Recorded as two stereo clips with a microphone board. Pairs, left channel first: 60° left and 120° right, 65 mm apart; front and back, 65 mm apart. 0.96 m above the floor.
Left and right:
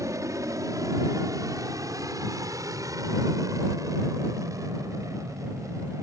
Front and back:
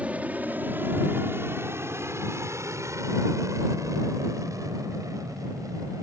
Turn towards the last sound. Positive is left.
turn(degrees=-155)